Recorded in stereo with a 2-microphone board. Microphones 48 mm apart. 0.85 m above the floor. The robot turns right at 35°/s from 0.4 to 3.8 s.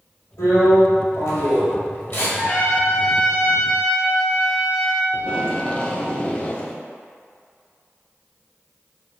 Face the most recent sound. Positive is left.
turn(degrees=20)  # may be behind; listen again after turning